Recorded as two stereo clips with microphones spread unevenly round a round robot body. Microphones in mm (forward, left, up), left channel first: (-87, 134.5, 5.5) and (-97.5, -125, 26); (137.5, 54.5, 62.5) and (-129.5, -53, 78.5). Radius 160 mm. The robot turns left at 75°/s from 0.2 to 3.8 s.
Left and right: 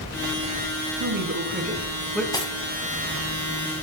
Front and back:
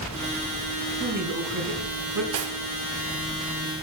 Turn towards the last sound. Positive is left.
turn(degrees=55)